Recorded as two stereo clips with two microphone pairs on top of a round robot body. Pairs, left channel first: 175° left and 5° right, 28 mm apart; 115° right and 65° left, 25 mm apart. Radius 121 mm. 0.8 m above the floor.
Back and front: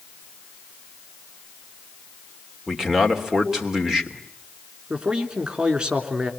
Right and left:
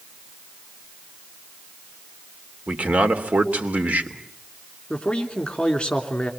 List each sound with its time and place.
2.7 s a man speaking: 75° left, 3 m
4.9 s a man speaking: 60° right, 3 m